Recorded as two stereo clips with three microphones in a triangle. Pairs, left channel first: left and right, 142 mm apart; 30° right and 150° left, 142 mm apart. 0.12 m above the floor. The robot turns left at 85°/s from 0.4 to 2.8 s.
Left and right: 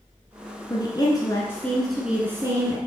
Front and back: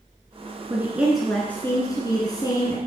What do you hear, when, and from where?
0.7 s a woman speaking: 105° left, 1.2 m; by 2.8 s 75° right, 1.2 m